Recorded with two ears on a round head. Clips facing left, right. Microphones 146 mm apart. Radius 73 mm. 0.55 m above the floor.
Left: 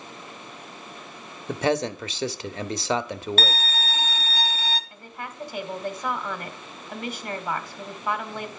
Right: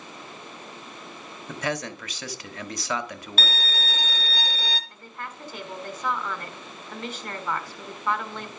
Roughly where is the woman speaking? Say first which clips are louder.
Left 1 dB; centre.